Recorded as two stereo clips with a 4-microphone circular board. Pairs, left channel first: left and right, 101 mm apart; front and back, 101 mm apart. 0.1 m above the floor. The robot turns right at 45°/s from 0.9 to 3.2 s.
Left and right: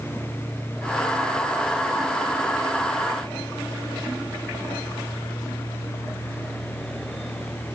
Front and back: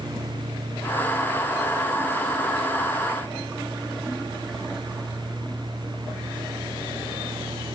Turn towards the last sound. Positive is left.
No sound to turn to.